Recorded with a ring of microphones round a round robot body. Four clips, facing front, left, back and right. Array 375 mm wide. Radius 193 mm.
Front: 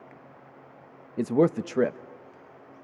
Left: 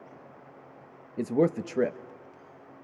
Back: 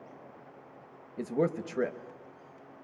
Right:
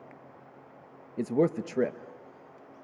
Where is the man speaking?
Straight ahead, 0.9 m.